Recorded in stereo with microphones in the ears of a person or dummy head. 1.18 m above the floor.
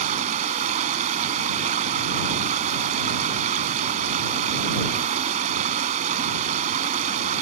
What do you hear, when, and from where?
0.0 s running water: 40° right (ahead or behind)